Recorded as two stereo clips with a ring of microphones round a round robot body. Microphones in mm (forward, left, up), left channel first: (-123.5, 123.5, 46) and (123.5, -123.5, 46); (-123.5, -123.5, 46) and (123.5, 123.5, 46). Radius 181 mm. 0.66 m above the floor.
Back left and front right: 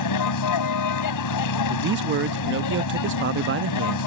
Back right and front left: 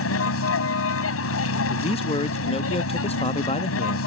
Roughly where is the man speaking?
Right.